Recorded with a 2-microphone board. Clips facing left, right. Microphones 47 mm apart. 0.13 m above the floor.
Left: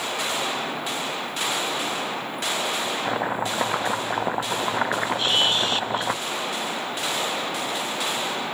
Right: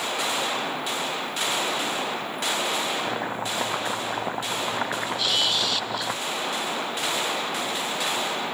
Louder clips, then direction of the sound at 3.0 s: Left 3 dB; 20° left (ahead or behind).